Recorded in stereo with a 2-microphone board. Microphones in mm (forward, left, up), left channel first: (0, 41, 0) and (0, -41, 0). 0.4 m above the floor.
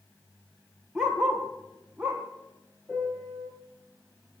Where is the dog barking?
5° right (ahead or behind), 2 m; by 2.2 s 15° right (ahead or behind), 3.5 m.